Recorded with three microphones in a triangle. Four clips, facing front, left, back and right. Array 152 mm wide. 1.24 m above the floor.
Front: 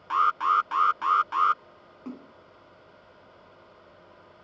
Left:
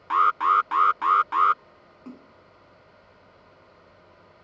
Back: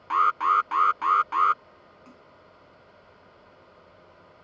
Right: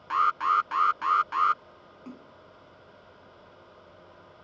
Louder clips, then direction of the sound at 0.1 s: Left 4 dB, back 1 dB; 115° left.